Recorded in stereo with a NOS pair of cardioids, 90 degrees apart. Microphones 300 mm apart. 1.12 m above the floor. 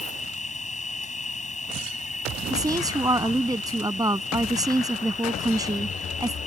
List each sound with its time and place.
0.0 s an insect: 25° left
2.5 s a woman speaking: 10° right